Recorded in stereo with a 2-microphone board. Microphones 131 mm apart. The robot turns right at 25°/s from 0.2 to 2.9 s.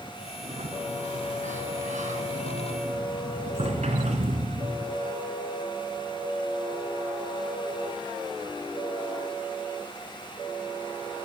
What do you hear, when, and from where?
0.4 s a sliding door: 125° right, 3.5 m; by 5.0 s 60° right, 3.5 m